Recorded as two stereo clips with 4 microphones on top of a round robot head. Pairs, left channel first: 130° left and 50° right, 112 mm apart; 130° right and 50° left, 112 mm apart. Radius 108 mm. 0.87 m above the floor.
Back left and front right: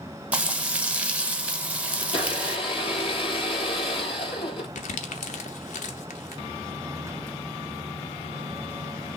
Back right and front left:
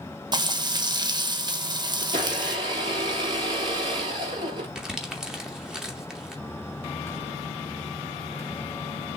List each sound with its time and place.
0.3 s frying: 25° left, 1.2 m
2.0 s a blender: 95° left, 3.5 m
4.8 s crumpling: 135° left, 0.7 m